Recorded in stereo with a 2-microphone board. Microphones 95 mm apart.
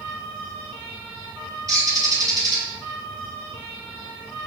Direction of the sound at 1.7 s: 40° right (ahead or behind).